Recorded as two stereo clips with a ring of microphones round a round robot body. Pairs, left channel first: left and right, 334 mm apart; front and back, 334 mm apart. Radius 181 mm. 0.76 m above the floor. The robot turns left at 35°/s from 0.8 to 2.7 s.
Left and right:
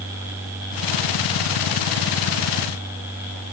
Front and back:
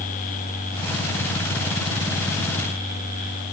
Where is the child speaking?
I don't hear a child speaking.